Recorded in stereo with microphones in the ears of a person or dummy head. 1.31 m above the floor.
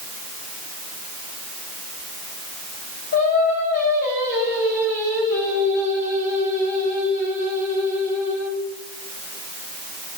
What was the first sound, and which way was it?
Singing, 55° left (ahead or behind).